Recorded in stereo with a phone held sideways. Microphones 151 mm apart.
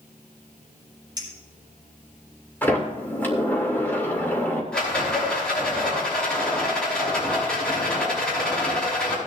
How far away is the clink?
About 4.5 m.